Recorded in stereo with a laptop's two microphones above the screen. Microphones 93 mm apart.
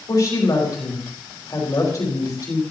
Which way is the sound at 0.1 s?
45° left (ahead or behind).